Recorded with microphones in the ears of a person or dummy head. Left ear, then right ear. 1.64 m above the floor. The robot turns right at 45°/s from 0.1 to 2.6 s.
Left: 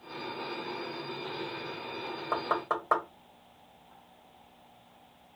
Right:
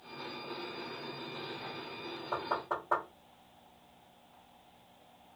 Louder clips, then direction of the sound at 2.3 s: Left 4 dB; 55° left (ahead or behind).